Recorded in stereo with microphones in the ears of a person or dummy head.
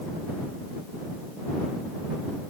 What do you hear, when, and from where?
Only background noise.